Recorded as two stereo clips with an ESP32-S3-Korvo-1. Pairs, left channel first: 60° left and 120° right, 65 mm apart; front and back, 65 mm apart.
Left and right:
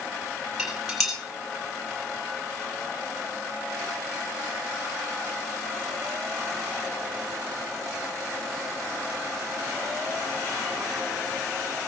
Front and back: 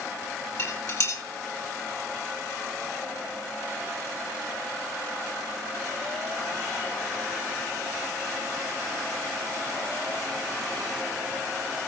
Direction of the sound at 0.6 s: 35° right.